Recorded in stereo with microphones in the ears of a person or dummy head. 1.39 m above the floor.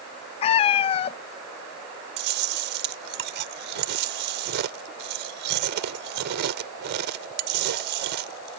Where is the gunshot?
I don't hear a gunshot.